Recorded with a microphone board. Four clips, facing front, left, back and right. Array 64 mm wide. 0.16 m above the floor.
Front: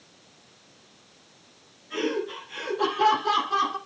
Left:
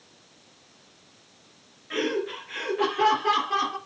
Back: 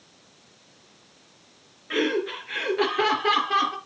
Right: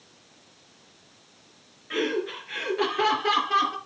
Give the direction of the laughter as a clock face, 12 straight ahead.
6 o'clock.